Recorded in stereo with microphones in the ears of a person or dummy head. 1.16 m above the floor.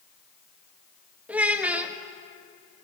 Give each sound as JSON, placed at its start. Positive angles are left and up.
{"t": 1.3, "sound": "a child speaking", "side_deg": -10, "distance_m": 0.7}